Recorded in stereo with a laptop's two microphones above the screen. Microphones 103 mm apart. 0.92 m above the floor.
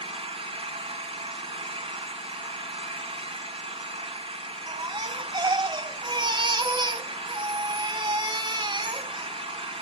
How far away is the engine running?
About 2.5 m.